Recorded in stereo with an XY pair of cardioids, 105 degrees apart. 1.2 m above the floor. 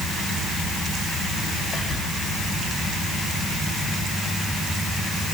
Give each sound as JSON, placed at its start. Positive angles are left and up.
{"t": 1.7, "sound": "whispering", "azimuth_deg": 40, "distance_m": 2.0}